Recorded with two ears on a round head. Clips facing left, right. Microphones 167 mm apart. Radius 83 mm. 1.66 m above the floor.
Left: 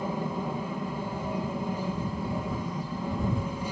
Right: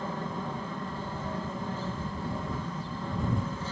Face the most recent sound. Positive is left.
turn(degrees=10)  # may be behind; listen again after turning